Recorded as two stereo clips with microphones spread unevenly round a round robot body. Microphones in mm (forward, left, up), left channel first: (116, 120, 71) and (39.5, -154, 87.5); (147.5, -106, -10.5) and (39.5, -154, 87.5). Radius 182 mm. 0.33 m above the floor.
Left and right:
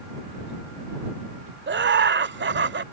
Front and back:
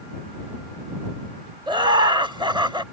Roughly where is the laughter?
Ahead right.